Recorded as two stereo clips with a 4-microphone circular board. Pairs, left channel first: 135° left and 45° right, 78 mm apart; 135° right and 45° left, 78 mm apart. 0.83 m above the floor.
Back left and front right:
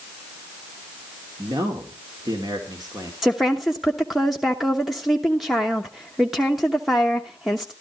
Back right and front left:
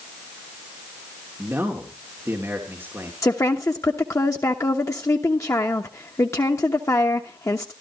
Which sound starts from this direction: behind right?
A woman speaking, at 3.2 s.